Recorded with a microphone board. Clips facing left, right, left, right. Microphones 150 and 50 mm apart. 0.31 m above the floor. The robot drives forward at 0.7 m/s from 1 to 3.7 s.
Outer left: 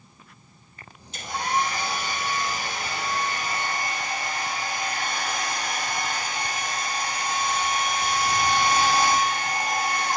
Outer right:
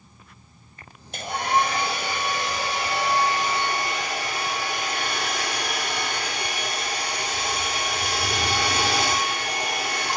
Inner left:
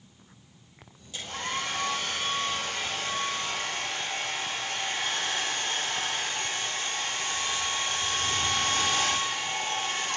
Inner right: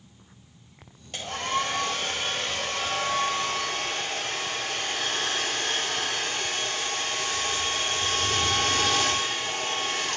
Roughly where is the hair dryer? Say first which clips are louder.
Outer right 3 dB, inner right 5 dB; right.